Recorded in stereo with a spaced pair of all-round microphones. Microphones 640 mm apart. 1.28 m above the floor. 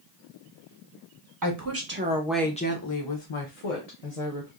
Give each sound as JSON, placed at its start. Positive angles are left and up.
{"t": 1.4, "sound": "a woman speaking", "side_deg": -30, "distance_m": 0.9}